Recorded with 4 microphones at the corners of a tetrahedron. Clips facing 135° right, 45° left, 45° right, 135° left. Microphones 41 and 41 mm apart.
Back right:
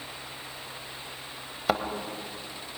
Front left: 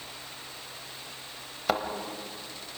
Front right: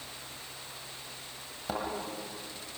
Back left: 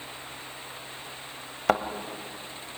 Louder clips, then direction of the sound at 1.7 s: Back right 1 dB, back left 11 dB; 135° left.